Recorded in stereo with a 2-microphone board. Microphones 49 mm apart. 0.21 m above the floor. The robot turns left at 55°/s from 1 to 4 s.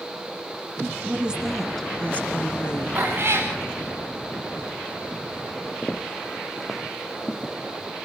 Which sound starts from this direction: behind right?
A woman speaking, at 1.0 s.